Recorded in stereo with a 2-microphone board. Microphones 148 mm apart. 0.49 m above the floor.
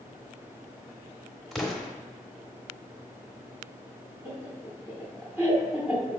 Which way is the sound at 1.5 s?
Centre (ahead or behind).